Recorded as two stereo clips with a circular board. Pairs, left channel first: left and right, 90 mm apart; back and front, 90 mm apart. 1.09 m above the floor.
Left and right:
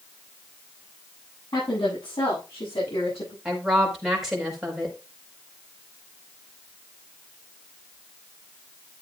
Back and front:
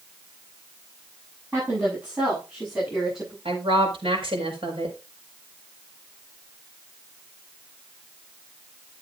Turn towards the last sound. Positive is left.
turn(degrees=0)